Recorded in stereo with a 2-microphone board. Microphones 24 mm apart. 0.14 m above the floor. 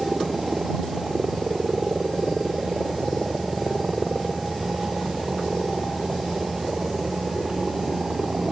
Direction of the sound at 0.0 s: 35° right (ahead or behind).